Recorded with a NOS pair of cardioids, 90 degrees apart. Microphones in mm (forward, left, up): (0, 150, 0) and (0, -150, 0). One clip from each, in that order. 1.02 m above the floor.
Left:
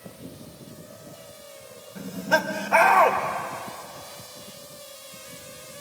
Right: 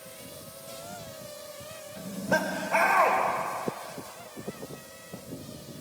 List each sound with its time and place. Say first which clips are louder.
1.9 s laughter: left 5 dB; 40° left, 3.5 m